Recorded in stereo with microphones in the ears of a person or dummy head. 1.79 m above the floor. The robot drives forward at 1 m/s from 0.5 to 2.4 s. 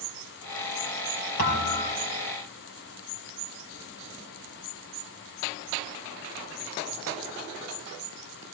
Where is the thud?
45° left (ahead or behind), 3 m; by 2.0 s 40° left (ahead or behind), 3.5 m.